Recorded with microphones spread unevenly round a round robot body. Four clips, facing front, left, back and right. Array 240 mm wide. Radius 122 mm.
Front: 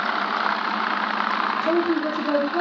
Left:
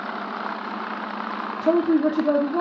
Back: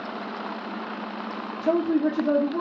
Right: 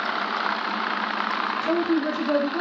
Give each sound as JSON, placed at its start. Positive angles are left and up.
{"t": 1.6, "sound": "a woman speaking", "azimuth_deg": 90, "distance_m": 0.6}